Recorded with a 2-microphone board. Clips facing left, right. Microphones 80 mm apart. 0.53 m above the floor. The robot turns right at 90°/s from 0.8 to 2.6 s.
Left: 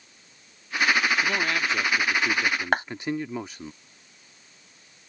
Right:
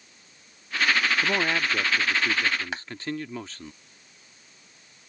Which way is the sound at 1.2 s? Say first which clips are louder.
Even; 20° right (ahead or behind).